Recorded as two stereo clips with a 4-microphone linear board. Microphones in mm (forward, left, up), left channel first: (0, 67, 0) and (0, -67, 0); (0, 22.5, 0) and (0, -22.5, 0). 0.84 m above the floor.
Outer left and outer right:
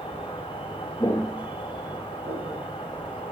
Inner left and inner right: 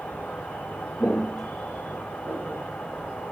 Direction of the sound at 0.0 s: 40° left (ahead or behind).